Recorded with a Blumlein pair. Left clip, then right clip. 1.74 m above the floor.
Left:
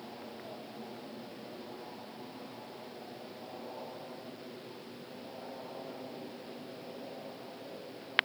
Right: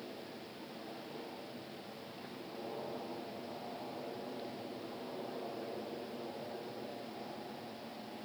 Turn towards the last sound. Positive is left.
No sound to turn to.